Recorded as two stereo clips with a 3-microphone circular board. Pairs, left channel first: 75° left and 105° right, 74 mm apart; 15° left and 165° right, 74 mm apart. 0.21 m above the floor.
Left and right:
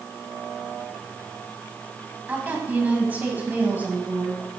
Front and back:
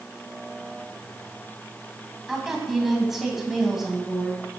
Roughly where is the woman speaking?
Right.